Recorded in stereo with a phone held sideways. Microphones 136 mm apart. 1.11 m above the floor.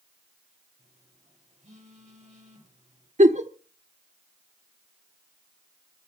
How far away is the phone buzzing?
About 7.5 m.